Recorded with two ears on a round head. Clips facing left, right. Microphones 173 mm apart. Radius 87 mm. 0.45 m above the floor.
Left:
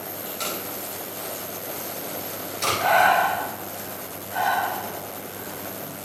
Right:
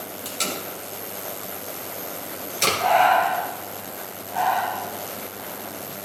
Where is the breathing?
55° left (ahead or behind), 1.5 m.